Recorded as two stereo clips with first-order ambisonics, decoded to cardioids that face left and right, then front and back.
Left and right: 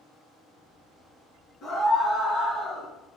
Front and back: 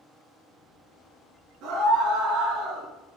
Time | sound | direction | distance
1.6 | a scream | 140° left | 5.5 m